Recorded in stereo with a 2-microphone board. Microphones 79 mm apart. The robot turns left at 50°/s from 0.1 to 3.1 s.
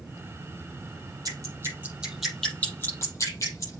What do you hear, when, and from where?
1.2 s dripping: 50° right (ahead or behind), 6.5 m; by 3.8 s 45° left (ahead or behind), 6.5 m